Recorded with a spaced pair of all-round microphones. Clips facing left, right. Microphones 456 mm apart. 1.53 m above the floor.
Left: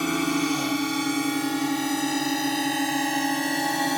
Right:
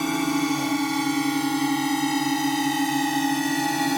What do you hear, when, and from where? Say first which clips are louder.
0.0 s a drone: right 1 dB; 10° right (ahead or behind); by 4.0 s 25° right (ahead or behind)